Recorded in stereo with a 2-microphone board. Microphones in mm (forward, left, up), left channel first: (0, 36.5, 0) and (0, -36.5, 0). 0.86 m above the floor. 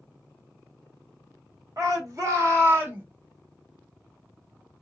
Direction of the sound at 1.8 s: 50° right (ahead or behind).